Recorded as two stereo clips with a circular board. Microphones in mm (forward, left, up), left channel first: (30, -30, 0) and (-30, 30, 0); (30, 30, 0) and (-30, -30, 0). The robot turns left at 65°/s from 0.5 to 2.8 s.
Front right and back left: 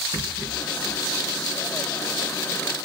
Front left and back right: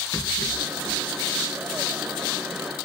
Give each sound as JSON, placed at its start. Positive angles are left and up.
{"t": 0.1, "sound": "a rattle", "azimuth_deg": 100, "distance_m": 4.0}